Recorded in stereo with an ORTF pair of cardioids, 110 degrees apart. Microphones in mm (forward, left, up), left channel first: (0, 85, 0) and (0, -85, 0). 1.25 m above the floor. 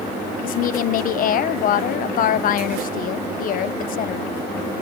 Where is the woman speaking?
55° left, 0.6 m.